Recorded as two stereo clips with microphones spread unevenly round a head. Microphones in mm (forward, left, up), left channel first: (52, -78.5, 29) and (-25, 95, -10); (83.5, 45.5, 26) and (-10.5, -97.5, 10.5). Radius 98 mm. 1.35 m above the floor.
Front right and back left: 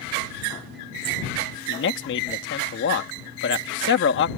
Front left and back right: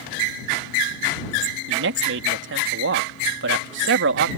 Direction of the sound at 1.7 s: 105° right.